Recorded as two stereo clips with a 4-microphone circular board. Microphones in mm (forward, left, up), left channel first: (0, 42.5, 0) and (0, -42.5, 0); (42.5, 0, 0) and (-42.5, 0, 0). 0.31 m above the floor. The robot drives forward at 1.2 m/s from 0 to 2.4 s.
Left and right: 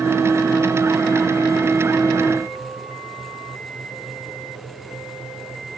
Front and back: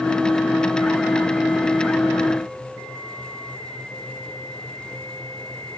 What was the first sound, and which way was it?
Only background noise.